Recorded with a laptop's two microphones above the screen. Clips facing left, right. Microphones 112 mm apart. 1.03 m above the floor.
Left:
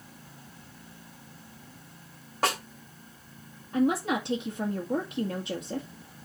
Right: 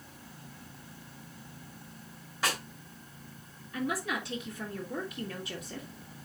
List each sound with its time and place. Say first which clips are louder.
2.4 s a snare drum: left 5 dB; 55° left (ahead or behind), 3 m
3.7 s a woman speaking: left 8 dB; 55° left (ahead or behind), 1.5 m